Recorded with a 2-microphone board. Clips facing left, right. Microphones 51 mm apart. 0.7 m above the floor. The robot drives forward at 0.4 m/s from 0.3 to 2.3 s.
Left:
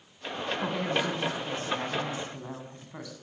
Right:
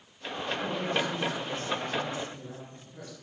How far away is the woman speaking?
About 7 m.